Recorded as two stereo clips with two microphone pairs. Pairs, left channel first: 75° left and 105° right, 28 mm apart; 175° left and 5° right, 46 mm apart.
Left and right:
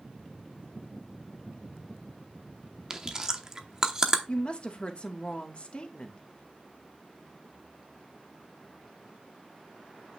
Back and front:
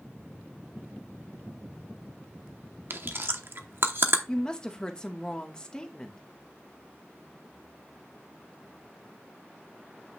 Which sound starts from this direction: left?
A woman speaking, at 4.3 s.